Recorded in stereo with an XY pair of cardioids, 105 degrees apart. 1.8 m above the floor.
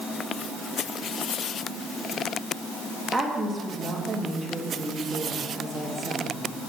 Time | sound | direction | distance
3.1 | a woman speaking | 20° right | 2.5 m